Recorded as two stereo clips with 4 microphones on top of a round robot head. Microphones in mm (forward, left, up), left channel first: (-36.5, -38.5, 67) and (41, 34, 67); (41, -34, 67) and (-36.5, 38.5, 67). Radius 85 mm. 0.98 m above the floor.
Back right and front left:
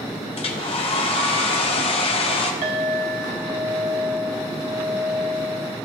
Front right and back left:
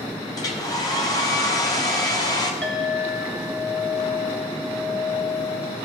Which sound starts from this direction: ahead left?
A clink, at 2.6 s.